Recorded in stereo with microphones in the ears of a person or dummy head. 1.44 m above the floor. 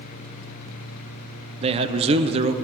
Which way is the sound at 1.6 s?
30° right (ahead or behind).